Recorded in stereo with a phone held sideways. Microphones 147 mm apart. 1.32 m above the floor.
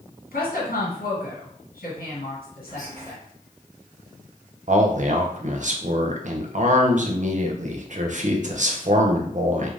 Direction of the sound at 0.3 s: 80° left.